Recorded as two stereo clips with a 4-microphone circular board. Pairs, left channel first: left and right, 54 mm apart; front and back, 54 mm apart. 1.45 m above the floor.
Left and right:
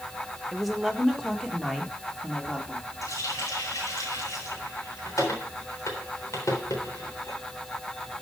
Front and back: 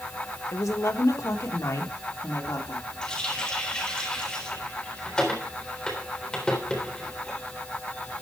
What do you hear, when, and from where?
0.5 s a woman speaking: 5° right, 1.5 m; by 2.9 s 15° left, 3 m
3.0 s a running tap: 75° left, 3.5 m